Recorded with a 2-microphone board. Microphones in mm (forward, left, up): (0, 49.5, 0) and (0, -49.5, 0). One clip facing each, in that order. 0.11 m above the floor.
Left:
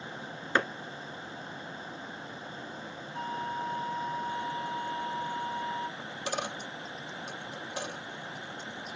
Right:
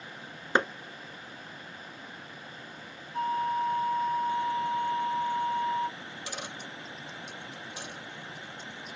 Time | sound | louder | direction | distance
0.6 | a clap | right 2 dB | 20° right (ahead or behind) | 1.3 m
3.1 | a flute | right 7 dB | 45° right (ahead or behind) | 1.0 m
6.0 | a dropped coin | left 5 dB | 60° left (ahead or behind) | 1.9 m